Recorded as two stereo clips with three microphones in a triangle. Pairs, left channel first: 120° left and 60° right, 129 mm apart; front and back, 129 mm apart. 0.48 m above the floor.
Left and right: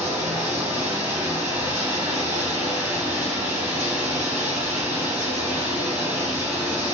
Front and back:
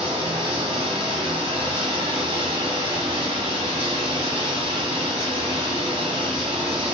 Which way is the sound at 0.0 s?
135° right.